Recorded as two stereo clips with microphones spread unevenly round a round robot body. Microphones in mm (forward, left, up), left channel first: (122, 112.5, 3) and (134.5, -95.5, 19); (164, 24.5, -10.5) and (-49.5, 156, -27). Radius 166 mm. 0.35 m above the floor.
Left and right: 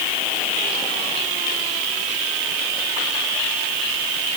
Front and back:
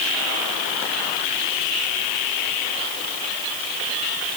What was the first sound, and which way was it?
Only background noise.